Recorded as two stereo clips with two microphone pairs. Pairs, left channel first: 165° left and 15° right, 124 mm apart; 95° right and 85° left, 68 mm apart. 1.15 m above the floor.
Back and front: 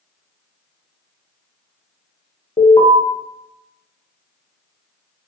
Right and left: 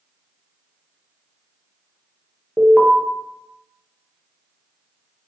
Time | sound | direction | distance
2.6 | an alarm | 170° left | 0.5 m